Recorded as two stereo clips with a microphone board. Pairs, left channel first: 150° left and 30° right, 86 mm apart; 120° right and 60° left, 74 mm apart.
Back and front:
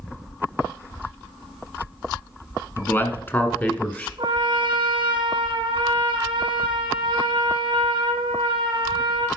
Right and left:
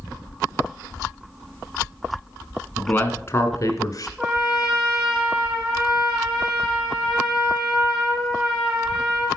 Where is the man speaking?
175° right, 1.2 m; by 4.1 s 145° right, 1.8 m.